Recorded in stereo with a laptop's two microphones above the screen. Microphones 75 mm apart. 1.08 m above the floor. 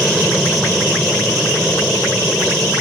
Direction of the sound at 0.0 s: Centre (ahead or behind).